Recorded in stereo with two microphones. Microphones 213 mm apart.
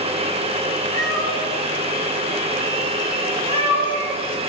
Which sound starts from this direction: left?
A cat meowing, at 0.9 s.